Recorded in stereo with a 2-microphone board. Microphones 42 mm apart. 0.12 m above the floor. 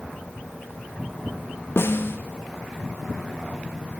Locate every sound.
1.8 s a snare drum: 65° left (ahead or behind), 1.2 m